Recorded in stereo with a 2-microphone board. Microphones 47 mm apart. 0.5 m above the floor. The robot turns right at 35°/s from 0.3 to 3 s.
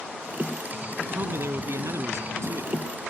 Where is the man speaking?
130° right; by 2.7 s 70° right.